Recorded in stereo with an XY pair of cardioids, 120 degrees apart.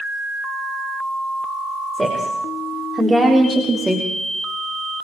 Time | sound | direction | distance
1.9 | a woman speaking | 10° right | 5 m